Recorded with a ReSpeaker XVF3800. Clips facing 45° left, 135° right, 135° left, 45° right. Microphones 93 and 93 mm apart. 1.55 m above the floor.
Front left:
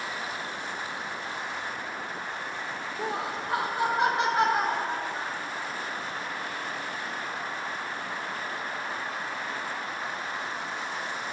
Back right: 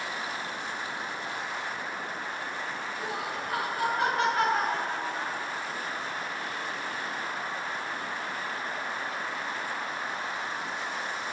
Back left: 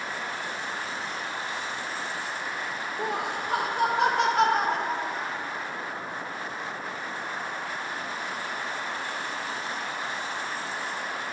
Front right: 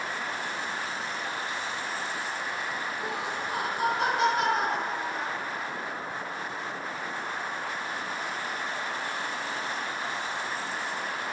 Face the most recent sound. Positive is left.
turn(degrees=115)